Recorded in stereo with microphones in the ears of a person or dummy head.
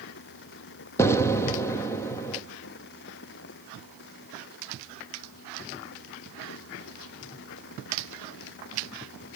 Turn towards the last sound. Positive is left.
turn(degrees=15)  # may be behind; listen again after turning